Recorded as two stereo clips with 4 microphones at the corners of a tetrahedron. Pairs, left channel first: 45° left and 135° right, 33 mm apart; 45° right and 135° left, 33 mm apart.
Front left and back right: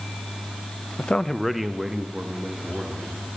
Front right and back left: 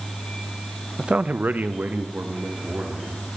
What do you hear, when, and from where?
1.0 s a man speaking: 75° left, 0.5 m; by 3.4 s 165° left, 3 m